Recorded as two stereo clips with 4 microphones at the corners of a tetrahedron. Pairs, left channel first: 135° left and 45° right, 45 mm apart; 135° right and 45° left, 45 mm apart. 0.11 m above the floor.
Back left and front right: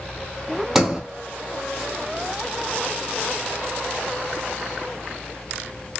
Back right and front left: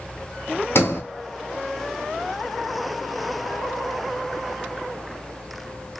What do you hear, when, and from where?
0.8 s a sliding door: 125° right, 0.6 m